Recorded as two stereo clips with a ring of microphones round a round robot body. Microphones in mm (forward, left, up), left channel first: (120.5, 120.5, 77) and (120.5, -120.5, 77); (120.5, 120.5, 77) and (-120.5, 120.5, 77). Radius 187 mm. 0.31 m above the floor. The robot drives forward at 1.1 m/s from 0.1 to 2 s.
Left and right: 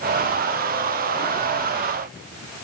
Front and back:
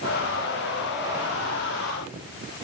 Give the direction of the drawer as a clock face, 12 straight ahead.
I don't hear a drawer.